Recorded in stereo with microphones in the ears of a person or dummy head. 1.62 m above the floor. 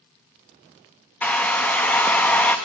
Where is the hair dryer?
5° left (ahead or behind), 0.6 m.